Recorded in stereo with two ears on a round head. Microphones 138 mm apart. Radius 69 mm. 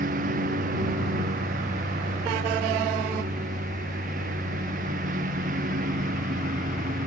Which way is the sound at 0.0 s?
55° right (ahead or behind).